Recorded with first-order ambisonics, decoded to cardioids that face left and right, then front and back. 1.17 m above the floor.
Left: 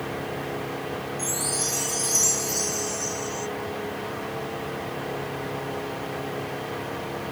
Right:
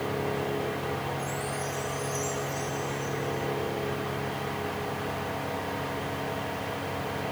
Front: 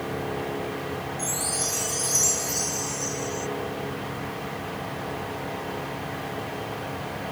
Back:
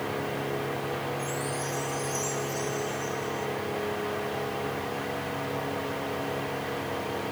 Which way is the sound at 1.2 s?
50° left.